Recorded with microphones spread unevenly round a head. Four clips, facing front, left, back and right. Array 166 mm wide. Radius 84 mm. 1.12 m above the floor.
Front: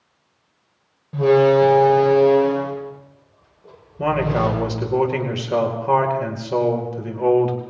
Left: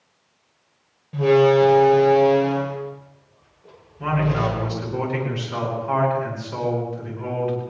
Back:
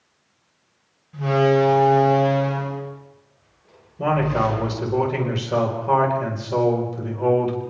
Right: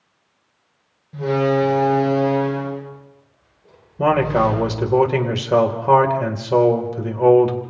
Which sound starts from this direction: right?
A man speaking, at 4.0 s.